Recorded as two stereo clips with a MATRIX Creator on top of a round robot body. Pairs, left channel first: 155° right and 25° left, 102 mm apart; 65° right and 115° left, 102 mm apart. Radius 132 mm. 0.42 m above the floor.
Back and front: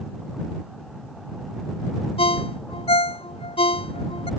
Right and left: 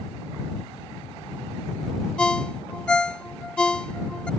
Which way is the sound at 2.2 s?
150° right.